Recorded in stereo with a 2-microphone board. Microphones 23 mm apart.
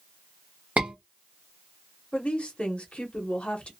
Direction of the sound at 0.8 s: 65° right (ahead or behind).